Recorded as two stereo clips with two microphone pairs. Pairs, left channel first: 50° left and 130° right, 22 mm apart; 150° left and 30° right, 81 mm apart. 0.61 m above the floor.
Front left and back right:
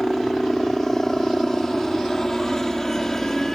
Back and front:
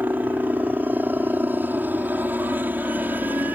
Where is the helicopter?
5° left.